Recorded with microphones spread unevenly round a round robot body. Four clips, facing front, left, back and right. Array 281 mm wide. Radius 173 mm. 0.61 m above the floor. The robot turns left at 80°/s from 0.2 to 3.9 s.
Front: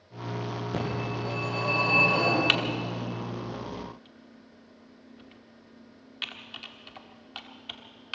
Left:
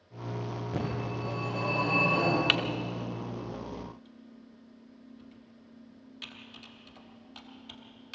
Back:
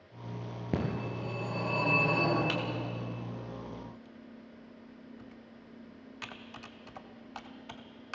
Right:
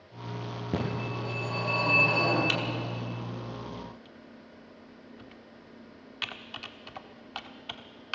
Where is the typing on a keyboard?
35° left, 1.5 m; by 8.2 s 80° right, 1.5 m.